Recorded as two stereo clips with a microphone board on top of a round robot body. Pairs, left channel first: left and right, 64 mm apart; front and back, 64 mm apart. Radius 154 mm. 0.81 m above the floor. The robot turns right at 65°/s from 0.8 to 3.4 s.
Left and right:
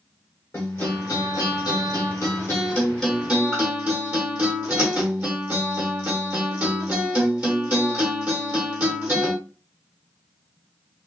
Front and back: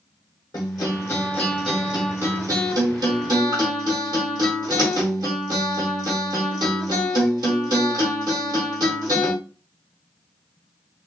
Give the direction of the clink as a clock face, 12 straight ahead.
No clink in this recording.